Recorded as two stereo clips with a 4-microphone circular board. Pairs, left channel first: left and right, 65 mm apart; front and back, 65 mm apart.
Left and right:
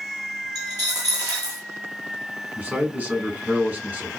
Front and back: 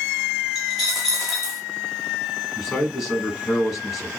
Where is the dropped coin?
100° right, 1.1 m.